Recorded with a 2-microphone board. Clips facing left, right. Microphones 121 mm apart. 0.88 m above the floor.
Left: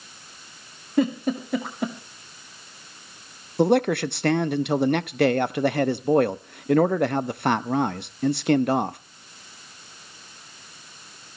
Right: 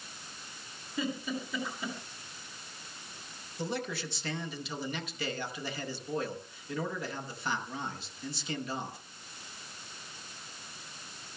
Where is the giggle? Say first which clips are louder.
Left 12 dB; 60° left (ahead or behind), 2 m.